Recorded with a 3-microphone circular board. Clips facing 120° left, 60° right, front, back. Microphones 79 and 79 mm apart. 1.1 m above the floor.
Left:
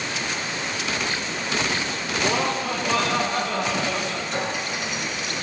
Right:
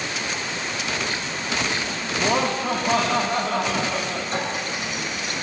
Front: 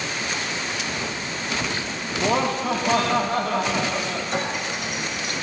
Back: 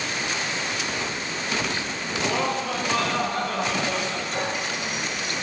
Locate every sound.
2.2 s laughter: 10° right, 2.5 m
4.3 s a clink: 15° right, 7 m